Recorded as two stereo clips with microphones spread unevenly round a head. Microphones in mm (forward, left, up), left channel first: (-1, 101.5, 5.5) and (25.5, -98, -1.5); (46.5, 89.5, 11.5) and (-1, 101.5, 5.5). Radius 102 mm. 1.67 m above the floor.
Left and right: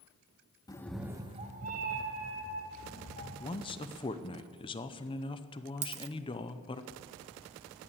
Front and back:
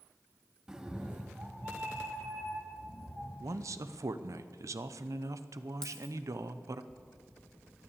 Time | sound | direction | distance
0.7 | a cat meowing | 90° left | 0.8 m
3.4 | a man speaking | 160° left | 0.7 m
5.8 | a dropped coin | 65° right | 1.1 m